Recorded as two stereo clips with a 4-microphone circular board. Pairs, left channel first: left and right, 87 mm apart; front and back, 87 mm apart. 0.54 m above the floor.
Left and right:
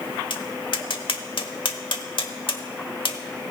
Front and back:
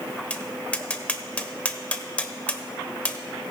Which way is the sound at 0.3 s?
75° left.